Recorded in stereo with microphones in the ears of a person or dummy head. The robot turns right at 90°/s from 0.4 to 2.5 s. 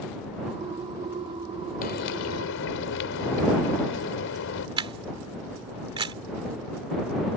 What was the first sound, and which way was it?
Frying, 50° left.